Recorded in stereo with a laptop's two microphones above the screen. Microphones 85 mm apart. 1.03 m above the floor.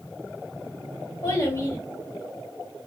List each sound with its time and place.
1.2 s a child speaking: 25° left (ahead or behind), 1.7 m